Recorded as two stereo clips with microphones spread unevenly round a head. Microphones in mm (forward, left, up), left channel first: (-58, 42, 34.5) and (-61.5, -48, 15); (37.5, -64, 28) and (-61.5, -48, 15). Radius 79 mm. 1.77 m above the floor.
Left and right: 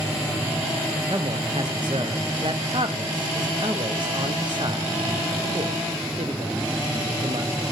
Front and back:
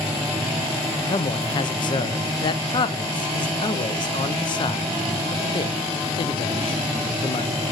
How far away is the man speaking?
About 0.8 m.